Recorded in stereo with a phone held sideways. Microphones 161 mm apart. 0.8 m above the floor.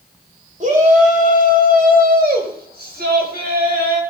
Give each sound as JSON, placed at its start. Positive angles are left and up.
{"t": 0.6, "sound": "a shout", "side_deg": -50, "distance_m": 4.0}